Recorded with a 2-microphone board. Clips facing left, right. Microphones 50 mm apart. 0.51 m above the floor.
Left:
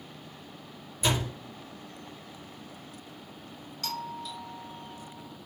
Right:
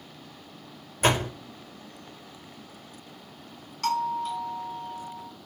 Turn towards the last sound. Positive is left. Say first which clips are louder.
# right 10 dB
turn(degrees=-45)  # may be behind; listen again after turning